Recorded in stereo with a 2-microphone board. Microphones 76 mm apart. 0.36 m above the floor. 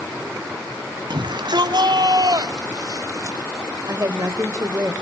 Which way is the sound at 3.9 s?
40° right (ahead or behind).